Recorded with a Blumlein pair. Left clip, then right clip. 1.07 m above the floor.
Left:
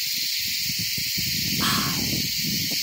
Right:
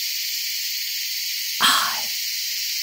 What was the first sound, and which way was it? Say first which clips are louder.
Whispering: right 9 dB; 60° right.